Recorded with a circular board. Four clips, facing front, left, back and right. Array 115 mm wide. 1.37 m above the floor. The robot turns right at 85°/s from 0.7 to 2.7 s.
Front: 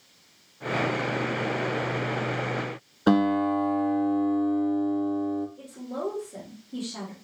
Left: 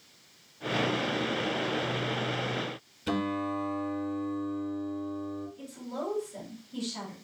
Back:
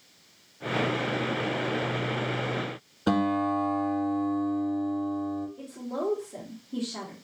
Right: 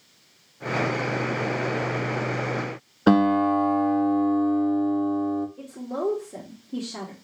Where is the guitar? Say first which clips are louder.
Right 12 dB, front 3 dB; 70° right, 0.6 m.